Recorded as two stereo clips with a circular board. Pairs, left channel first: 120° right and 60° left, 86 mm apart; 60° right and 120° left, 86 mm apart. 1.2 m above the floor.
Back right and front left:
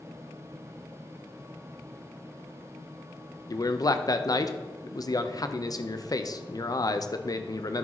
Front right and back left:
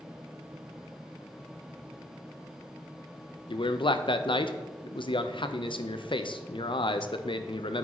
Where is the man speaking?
75° right, 0.6 m.